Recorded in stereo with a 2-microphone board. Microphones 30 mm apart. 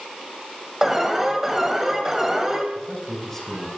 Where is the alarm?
15° right (ahead or behind), 2.5 m.